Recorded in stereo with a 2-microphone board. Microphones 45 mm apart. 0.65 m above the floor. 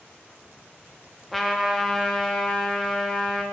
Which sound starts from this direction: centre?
A trumpet, at 1.3 s.